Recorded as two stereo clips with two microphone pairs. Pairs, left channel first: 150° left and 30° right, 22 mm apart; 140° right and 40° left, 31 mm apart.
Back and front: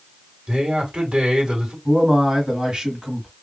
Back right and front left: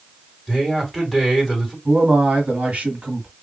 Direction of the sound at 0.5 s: 45° right.